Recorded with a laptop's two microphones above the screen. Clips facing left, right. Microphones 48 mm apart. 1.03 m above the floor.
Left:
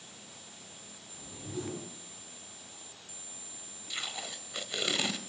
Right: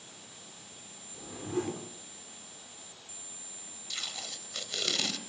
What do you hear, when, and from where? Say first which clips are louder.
1.1 s a whoosh: right 6 dB; 50° right (ahead or behind), 4 m
3.9 s tape being pulled: left 2 dB; 15° left (ahead or behind), 1.9 m